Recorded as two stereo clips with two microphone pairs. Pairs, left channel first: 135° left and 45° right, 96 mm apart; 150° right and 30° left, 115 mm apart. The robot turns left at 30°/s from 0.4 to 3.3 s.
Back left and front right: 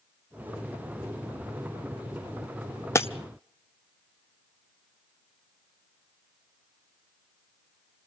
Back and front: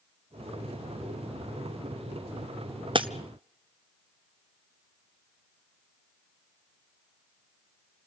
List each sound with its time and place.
3.0 s breaking glass: 75° left, 0.7 m; by 3.1 s 70° left, 0.7 m